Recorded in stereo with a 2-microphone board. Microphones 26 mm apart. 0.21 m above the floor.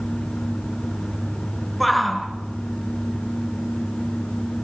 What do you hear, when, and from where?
1.8 s a shout: 5° left (ahead or behind), 2.5 m